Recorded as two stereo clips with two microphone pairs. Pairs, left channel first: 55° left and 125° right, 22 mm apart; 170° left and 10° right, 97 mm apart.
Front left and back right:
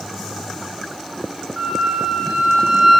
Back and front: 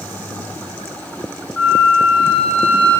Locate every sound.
1.6 s a flute: 135° right, 1.0 m